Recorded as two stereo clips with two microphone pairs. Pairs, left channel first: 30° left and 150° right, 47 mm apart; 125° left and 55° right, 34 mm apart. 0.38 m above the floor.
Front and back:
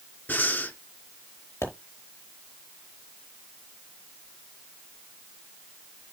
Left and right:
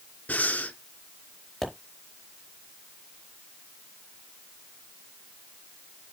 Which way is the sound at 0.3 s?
80° left.